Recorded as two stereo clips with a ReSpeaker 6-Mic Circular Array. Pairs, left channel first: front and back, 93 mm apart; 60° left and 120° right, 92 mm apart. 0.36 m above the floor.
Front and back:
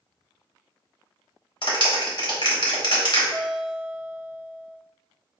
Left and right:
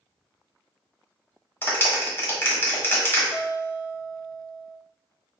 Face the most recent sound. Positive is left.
turn(degrees=90)